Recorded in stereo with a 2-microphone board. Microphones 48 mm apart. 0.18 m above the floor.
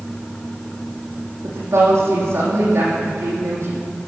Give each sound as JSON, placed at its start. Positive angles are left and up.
{"t": 1.4, "sound": "a woman speaking", "side_deg": -75, "distance_m": 7.0}